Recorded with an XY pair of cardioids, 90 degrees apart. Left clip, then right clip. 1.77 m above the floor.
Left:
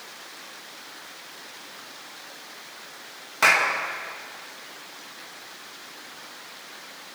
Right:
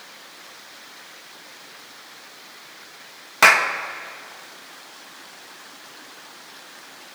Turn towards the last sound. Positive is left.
turn(degrees=-60)